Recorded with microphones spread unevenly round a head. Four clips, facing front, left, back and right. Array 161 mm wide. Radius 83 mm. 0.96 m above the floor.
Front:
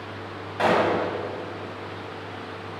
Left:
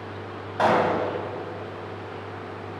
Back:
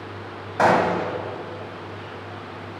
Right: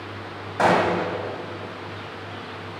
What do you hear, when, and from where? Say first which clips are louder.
0.6 s a gunshot: right 1 dB, back 3 dB; 145° right, 0.9 m